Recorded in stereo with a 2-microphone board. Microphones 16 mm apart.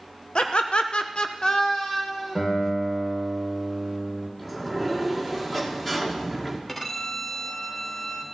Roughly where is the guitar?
Left.